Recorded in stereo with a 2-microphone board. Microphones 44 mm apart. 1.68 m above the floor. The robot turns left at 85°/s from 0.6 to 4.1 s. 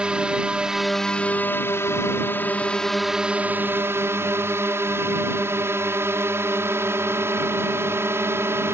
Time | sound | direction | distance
0.0 | a drone | 155° right | ?